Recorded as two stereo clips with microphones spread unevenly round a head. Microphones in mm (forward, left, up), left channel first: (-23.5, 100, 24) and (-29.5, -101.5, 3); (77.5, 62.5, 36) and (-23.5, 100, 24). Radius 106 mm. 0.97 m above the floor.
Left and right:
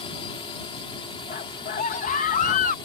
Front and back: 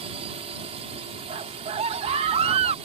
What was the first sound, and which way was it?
A drone, 150° left.